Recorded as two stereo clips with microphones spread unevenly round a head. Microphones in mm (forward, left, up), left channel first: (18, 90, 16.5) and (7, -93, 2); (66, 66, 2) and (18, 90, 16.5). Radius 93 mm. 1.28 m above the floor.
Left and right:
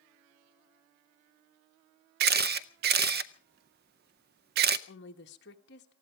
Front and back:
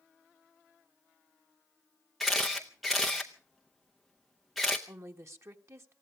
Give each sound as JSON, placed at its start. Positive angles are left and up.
{"t": 2.2, "sound": "a camera shutter", "azimuth_deg": -125, "distance_m": 0.5}
{"t": 4.9, "sound": "a woman speaking", "azimuth_deg": 120, "distance_m": 1.4}